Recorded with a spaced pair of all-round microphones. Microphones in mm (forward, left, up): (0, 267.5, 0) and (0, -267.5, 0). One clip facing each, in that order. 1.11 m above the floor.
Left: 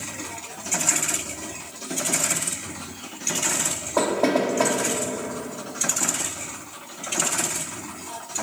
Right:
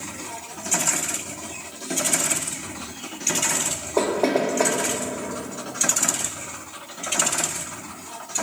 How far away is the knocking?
About 1.5 m.